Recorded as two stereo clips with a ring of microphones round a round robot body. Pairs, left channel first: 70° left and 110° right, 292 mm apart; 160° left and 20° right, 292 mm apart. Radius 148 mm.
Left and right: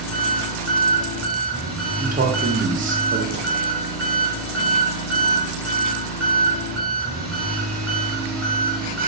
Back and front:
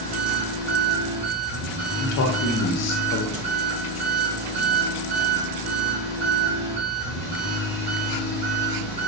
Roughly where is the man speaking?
Behind.